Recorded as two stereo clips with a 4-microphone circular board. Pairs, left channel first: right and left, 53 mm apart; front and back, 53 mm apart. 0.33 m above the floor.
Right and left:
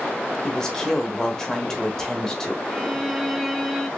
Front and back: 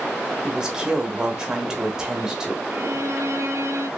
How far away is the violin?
About 0.6 m.